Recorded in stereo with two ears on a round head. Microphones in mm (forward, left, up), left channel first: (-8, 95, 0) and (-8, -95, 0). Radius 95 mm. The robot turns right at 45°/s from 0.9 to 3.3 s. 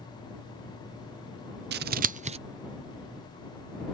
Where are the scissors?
50° right (ahead or behind); by 2.4 s 30° right (ahead or behind).